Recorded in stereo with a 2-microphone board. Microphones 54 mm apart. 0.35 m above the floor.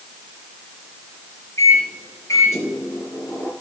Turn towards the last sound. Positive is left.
turn(degrees=65)  # may be behind; listen again after turning